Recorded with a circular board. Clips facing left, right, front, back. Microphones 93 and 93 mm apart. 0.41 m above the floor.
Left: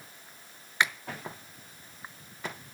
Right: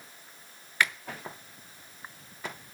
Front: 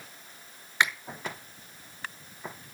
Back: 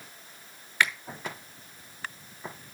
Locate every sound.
0.8 s a finger snap: 45° left, 0.9 m